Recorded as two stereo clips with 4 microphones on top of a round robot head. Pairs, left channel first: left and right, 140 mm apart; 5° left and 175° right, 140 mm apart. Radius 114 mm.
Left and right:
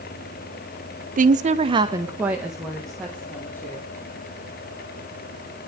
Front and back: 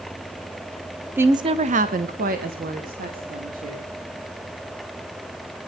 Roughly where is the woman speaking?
Right.